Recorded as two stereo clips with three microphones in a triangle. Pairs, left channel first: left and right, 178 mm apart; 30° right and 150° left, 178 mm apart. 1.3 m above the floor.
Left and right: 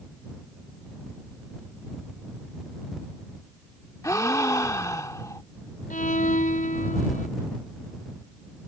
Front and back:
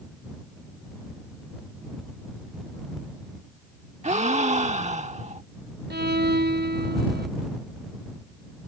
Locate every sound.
4.0 s a gasp: 150° left
5.9 s a violin: 130° left